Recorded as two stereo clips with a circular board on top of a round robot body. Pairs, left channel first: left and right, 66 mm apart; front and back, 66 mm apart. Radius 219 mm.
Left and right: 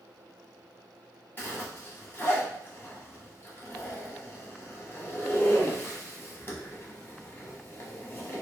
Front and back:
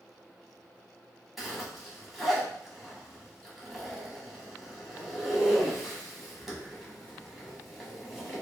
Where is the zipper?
95° left, 1.4 m.